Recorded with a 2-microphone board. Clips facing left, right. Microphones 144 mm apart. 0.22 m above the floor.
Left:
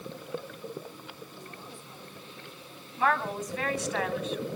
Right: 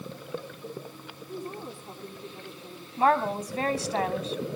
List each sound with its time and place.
1.3 s a woman speaking: 55° right (ahead or behind), 8 m
3.0 s a woman speaking: 35° right (ahead or behind), 1.7 m